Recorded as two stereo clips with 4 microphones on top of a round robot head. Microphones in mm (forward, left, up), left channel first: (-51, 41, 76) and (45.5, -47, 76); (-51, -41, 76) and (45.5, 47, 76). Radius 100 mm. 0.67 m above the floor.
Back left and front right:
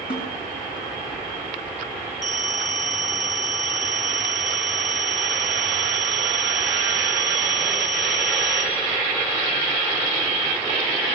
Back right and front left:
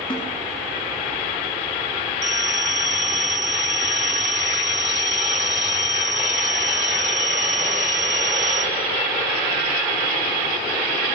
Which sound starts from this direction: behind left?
A snare drum, at 0.1 s.